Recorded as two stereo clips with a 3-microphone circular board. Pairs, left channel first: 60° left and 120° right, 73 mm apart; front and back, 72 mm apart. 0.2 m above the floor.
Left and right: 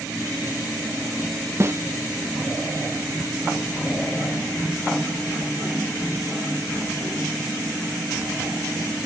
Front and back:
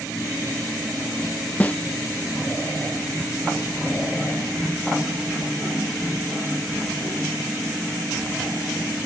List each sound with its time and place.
1.6 s a snare drum: 70° right